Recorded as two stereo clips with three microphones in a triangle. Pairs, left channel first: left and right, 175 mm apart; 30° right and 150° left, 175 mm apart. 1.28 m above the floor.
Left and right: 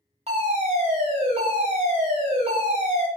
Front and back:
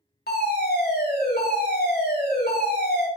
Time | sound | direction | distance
0.3 | a fire alarm | 40° right | 3.5 m